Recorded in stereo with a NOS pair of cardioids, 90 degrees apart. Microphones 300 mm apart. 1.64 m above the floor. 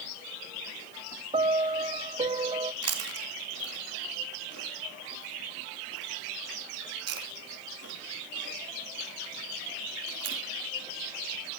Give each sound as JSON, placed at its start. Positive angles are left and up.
{"t": 1.3, "sound": "a piano", "azimuth_deg": -20, "distance_m": 1.0}
{"t": 2.8, "sound": "chewing", "azimuth_deg": -55, "distance_m": 3.0}